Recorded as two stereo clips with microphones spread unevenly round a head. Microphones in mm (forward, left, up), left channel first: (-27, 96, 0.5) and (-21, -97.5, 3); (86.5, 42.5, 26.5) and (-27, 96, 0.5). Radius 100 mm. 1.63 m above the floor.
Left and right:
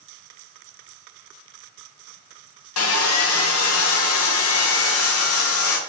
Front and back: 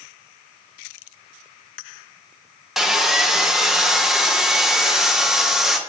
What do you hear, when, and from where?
2.8 s sawing: 65° left, 0.9 m